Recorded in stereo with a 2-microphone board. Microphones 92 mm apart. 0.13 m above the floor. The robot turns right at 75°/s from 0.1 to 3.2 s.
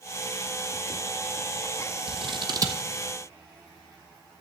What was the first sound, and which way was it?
Scissors, 80° right.